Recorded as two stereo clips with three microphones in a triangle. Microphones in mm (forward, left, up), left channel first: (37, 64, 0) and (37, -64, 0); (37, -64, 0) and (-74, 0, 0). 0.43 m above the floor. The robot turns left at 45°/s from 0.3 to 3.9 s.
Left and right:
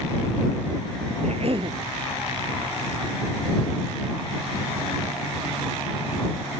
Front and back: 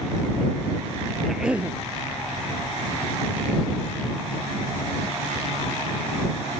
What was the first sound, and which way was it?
A cough, 120° right.